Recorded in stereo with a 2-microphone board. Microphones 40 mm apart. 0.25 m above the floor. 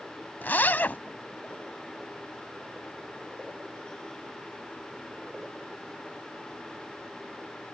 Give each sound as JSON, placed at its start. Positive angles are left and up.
{"t": 0.4, "sound": "a zipper", "side_deg": 45}